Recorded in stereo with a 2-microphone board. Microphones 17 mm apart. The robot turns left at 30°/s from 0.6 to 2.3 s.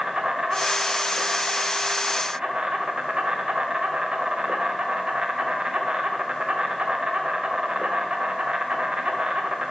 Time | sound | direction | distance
0.0 | an insect | 60° right | 1.3 m